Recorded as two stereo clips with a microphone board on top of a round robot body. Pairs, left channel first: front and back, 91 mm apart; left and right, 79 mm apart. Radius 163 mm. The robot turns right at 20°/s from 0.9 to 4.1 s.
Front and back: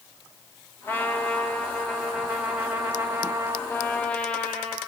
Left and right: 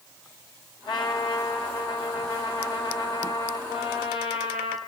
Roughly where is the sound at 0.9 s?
Left.